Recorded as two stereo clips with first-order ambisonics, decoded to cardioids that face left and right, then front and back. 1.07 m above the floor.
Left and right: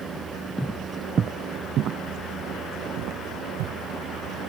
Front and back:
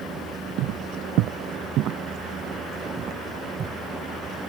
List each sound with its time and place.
0.6 s footsteps: straight behind; by 3.8 s 120° right